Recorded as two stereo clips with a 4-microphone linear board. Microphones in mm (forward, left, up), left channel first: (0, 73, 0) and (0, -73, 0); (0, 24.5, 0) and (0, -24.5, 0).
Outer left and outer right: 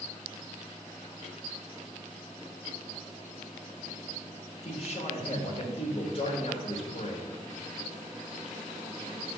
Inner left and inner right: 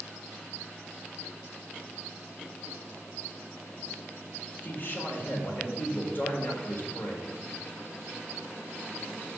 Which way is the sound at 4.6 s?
45° left (ahead or behind).